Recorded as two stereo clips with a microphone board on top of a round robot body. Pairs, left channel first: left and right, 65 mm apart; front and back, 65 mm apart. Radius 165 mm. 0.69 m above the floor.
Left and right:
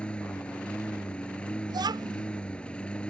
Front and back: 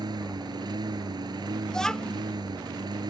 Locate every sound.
0.0 s a lawn mower: 165° left
1.7 s a child speaking: 85° right